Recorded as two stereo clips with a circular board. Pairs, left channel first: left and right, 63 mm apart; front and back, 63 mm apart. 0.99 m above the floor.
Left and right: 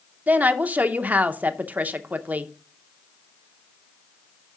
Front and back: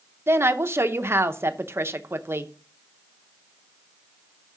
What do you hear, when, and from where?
0.3 s a woman speaking: 145° right, 0.7 m